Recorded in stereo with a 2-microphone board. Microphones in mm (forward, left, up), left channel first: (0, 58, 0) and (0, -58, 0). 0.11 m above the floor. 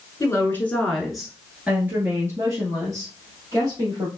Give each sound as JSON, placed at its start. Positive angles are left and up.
{"t": 0.2, "sound": "a woman speaking", "side_deg": 25, "distance_m": 1.2}